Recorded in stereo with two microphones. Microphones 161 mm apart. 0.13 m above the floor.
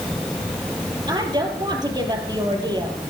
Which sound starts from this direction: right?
A woman speaking, at 1.1 s.